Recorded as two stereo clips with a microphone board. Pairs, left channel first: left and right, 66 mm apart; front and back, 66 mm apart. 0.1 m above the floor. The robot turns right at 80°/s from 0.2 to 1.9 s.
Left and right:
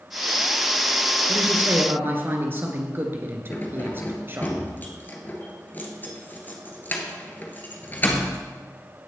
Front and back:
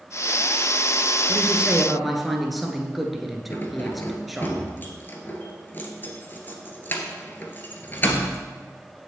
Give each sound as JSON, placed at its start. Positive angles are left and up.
{"t": 1.3, "sound": "a woman speaking", "azimuth_deg": -140, "distance_m": 1.6}
{"t": 3.5, "sound": "keys jangling", "azimuth_deg": 45, "distance_m": 1.4}